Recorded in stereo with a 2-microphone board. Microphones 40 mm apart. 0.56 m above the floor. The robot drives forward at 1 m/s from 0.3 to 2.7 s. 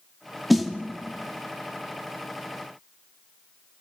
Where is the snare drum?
5° right (ahead or behind), 1.1 m.